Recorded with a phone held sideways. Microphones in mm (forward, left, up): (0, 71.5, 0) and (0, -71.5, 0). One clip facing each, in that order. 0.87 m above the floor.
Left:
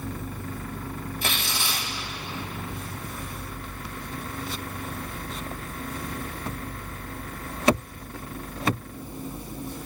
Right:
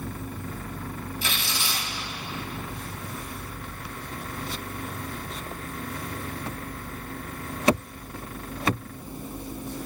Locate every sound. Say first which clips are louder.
1.2 s tearing paper: left 3 dB; 60° left (ahead or behind), 2.5 m